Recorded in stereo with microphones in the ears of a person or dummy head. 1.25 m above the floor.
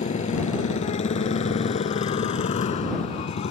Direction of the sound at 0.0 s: 40° left (ahead or behind).